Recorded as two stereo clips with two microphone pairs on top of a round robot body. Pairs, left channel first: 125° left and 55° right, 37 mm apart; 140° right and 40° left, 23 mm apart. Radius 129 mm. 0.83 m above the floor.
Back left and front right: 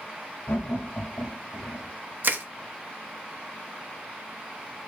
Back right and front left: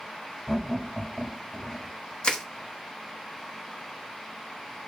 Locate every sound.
0.5 s laughter: 140° left, 1.7 m
2.2 s crushing: 90° right, 0.9 m